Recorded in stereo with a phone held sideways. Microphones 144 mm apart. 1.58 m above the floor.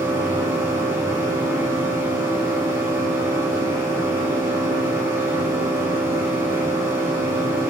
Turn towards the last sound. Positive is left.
turn(degrees=-15)  # may be behind; listen again after turning